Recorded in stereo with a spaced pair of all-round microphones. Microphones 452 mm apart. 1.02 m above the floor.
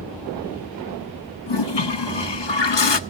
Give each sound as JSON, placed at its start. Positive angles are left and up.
{"t": 1.5, "sound": "a toilet flushing", "side_deg": 70, "distance_m": 0.8}